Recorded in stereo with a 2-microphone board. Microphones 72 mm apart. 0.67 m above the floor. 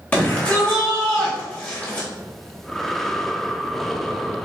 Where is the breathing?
5° left (ahead or behind), 0.7 m.